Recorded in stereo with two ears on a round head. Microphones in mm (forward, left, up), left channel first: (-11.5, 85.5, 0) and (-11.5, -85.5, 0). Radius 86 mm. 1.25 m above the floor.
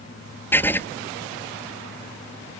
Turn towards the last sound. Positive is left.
turn(degrees=10)  # may be behind; listen again after turning